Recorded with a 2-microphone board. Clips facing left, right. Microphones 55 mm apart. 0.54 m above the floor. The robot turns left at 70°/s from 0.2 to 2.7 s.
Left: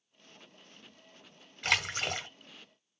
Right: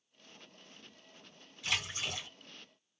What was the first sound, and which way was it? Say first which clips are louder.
A splash: left 6 dB; 105° left.